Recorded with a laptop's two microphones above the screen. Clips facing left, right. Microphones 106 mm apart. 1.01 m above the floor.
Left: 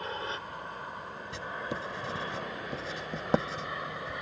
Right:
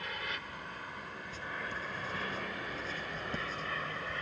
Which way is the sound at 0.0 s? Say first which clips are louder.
Left 5 dB; 30° left (ahead or behind).